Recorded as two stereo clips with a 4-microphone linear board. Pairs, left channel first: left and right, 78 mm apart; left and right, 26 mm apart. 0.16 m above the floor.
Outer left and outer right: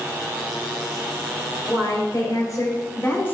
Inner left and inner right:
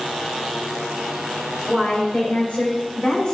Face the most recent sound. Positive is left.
turn(degrees=25)  # may be behind; listen again after turning